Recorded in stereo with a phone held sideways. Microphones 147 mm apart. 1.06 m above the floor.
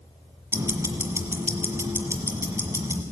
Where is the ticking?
20° right (ahead or behind), 1.6 m.